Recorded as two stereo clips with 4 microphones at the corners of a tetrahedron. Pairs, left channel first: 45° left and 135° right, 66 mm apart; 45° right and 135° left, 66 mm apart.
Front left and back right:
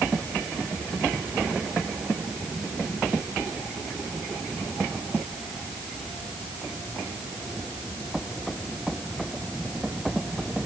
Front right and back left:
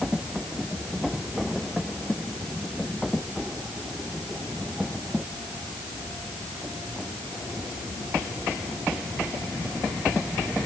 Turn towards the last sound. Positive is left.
No sound to turn to.